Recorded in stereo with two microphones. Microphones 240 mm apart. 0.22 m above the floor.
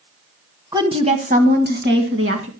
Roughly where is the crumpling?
No crumpling in this recording.